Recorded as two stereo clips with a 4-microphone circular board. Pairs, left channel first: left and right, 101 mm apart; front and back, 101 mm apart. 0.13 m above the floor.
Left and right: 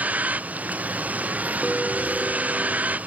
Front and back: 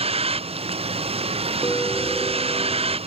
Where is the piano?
Straight ahead.